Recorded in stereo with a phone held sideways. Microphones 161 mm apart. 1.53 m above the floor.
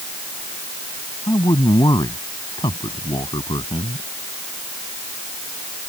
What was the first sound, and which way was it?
A man speaking, 25° left (ahead or behind).